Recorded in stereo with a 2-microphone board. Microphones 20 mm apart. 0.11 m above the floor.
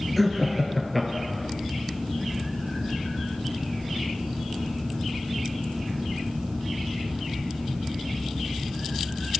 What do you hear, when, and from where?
0.2 s laughter: centre (ahead or behind), 1.4 m